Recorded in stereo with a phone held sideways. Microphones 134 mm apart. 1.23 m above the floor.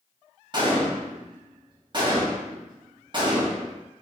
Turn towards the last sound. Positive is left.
turn(degrees=-35)  # may be behind; listen again after turning